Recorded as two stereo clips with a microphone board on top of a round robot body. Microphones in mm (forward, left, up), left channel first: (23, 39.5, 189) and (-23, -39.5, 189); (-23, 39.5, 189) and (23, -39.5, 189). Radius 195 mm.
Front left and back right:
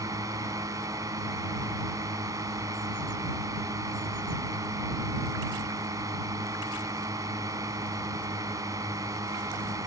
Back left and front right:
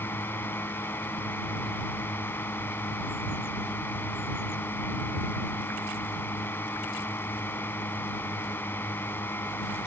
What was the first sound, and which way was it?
A drone, 175° right.